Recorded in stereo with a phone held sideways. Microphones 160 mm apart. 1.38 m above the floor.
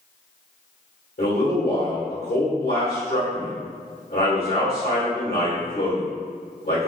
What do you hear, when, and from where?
1.2 s a man speaking: 70° left (ahead or behind), 1.6 m